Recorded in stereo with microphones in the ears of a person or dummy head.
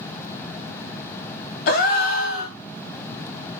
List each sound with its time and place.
1.7 s a gasp: 50° left (ahead or behind), 0.6 m